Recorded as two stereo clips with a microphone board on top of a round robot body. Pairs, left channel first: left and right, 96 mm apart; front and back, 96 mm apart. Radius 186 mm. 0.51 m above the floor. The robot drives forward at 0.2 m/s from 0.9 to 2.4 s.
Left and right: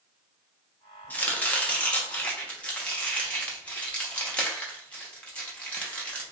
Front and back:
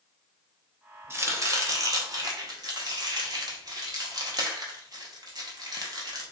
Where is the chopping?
145° left, 0.8 m; by 6.3 s 160° left, 0.9 m.